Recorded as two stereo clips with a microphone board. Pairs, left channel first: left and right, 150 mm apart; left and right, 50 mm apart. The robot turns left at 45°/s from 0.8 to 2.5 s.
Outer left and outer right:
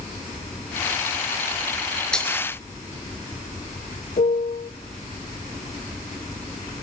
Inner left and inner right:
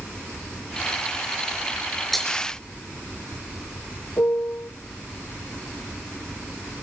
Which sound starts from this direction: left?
A piano, at 4.2 s.